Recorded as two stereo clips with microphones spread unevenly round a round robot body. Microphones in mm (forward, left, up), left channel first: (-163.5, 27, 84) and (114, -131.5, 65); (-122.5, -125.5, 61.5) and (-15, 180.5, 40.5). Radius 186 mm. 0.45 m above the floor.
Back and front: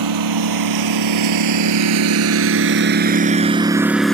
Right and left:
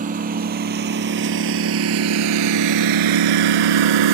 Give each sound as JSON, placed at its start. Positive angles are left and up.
{"t": 0.0, "sound": "a lawn mower", "azimuth_deg": 0}